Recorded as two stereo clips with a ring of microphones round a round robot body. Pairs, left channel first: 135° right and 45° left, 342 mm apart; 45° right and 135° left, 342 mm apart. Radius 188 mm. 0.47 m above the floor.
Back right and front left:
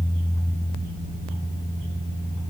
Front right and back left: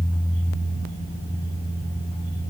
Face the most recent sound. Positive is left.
No sound to turn to.